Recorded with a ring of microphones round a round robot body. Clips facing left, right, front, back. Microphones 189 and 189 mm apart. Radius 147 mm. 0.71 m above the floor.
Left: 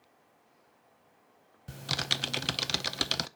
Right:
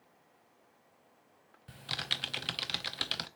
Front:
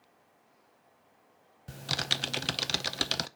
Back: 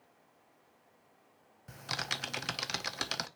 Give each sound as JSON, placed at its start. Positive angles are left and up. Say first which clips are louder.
{"t": 1.7, "sound": "typing on a keyboard", "louder": "left 7 dB, front 5 dB", "azimuth_deg": 55, "distance_m": 0.6}